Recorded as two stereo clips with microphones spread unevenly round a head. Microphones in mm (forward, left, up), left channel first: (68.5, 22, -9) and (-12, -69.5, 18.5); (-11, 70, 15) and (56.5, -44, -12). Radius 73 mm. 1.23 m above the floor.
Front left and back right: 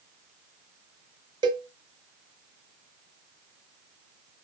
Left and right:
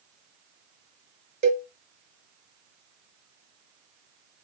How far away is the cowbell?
About 0.6 m.